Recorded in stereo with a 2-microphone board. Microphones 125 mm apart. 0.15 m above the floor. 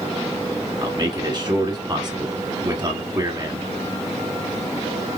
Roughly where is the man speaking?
Right.